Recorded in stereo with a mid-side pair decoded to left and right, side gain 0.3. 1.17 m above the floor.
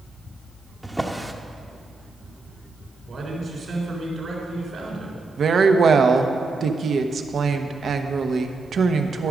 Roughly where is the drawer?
Ahead.